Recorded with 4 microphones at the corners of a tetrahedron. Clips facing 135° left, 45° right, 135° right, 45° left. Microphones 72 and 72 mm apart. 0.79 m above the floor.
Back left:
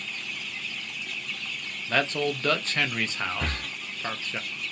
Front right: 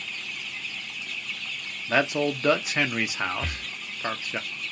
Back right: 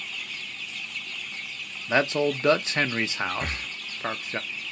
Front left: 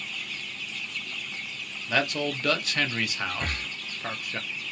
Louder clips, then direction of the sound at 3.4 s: Back left 2 dB, even; 140° left.